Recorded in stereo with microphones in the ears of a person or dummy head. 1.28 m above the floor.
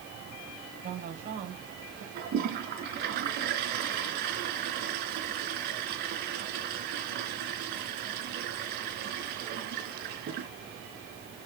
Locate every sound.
0.8 s a woman speaking: 50° right (ahead or behind), 6 m
2.1 s a toilet flushing: 55° right (ahead or behind), 4 m